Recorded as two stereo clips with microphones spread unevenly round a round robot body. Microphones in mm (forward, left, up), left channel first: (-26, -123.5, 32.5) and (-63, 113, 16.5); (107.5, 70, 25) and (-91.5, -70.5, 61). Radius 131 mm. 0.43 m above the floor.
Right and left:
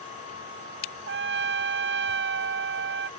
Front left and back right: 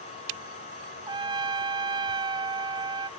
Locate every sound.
1.1 s a trumpet: 140° left